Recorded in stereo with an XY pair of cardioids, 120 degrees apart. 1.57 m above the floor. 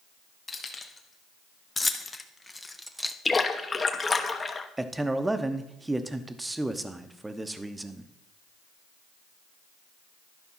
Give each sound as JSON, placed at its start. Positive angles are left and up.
{"t": 0.5, "sound": "keys jangling", "azimuth_deg": 25, "distance_m": 1.9}
{"t": 3.2, "sound": "a splash", "azimuth_deg": 25, "distance_m": 1.0}
{"t": 4.8, "sound": "a man speaking", "azimuth_deg": -10, "distance_m": 0.9}